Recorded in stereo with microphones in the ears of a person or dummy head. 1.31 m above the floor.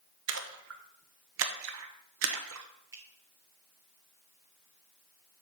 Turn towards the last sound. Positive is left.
turn(degrees=-15)  # may be behind; listen again after turning